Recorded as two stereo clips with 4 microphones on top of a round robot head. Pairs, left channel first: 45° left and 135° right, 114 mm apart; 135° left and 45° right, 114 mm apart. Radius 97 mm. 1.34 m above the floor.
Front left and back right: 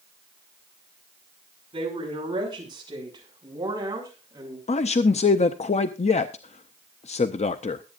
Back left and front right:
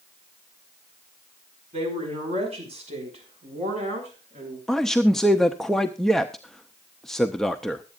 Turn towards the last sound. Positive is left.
turn(degrees=45)